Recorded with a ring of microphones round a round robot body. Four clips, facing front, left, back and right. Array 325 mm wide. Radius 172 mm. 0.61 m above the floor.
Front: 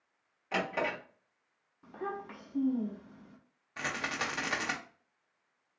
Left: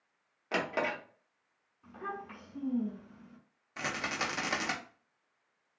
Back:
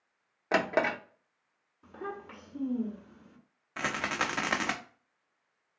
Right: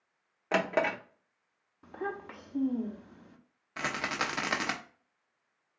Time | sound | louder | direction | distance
0.5 | a drawer | right 4 dB, back 5 dB | 150° right | 0.7 m
1.8 | a child speaking | right 4 dB, front 1 dB | 85° right | 1.1 m
3.8 | a rattle | right 2 dB, back 4 dB | 150° right | 0.8 m